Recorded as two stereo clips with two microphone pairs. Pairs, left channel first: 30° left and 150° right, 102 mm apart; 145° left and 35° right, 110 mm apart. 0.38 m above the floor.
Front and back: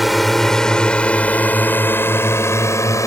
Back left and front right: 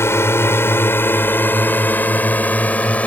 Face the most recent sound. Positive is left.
turn(degrees=70)